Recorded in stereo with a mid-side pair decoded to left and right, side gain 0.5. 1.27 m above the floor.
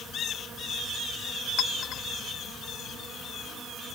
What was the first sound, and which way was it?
A clink, 70° left.